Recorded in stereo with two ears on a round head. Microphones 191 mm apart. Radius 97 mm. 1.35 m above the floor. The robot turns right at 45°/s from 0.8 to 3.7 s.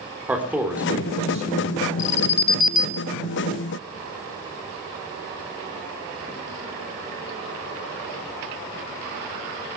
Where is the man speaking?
170° right, 3.5 m; by 2.0 s 115° right, 3.5 m.